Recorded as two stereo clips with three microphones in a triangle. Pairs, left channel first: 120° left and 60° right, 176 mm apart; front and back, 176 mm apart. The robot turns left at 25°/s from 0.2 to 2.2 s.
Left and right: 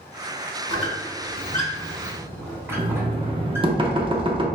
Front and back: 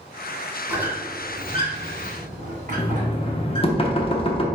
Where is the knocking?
25° right, 0.5 m.